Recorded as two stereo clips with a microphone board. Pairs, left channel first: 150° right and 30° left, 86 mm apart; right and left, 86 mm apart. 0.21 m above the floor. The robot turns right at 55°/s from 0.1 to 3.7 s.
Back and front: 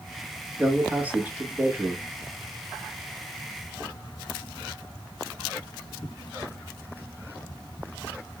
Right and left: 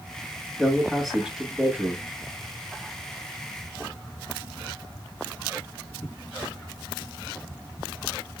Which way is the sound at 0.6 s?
20° right.